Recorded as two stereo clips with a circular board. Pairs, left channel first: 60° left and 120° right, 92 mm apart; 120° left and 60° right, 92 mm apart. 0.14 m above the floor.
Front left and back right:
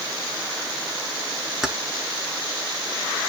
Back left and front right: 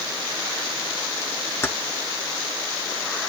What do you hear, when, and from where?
1.6 s keys jangling: 160° left, 1.0 m